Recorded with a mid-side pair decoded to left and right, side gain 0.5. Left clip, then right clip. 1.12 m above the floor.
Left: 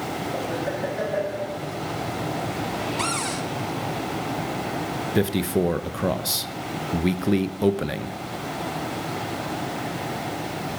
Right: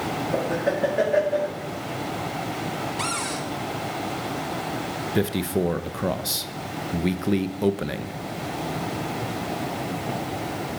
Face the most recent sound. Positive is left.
turn(degrees=10)